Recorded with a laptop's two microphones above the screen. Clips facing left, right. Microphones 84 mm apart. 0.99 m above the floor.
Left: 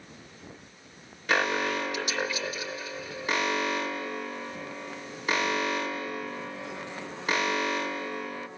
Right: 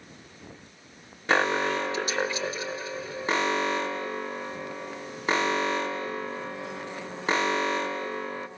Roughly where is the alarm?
Right.